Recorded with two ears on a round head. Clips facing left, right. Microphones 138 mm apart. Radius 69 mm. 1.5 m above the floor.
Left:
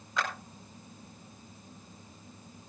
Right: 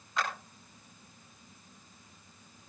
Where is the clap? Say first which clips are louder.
Even; 80° left, 5 m.